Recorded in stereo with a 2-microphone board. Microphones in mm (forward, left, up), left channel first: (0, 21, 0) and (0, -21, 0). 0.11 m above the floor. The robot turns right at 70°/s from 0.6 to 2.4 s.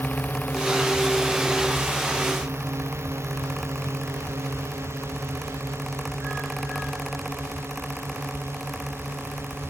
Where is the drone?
55° left (ahead or behind); by 9.7 s 65° right (ahead or behind).